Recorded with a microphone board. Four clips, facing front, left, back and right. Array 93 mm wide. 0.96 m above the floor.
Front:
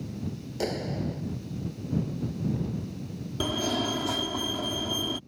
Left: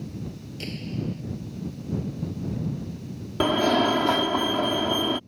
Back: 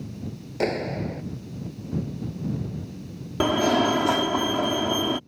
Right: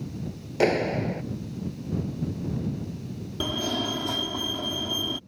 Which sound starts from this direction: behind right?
A clap, at 0.6 s.